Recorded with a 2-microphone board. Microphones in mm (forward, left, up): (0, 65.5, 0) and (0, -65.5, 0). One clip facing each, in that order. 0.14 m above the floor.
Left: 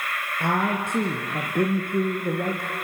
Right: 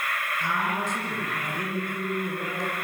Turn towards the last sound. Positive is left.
turn(degrees=60)  # may be behind; listen again after turning